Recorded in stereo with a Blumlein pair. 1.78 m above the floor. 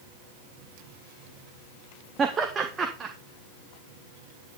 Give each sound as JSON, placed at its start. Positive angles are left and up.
{"t": 2.2, "sound": "laughter", "azimuth_deg": -20, "distance_m": 1.8}